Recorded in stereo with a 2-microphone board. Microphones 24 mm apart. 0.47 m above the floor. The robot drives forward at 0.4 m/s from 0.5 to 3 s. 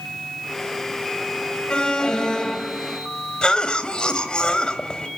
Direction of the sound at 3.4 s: 40° left (ahead or behind).